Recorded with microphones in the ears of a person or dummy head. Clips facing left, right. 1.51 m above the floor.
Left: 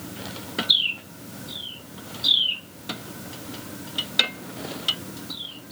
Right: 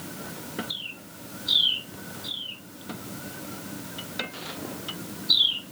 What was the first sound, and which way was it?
Only background noise.